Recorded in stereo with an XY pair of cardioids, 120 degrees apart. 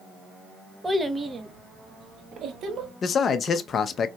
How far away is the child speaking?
About 0.7 m.